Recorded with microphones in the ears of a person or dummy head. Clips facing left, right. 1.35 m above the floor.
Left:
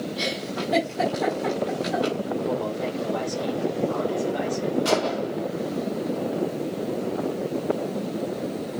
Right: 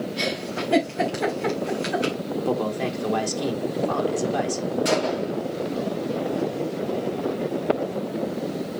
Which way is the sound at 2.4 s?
80° right.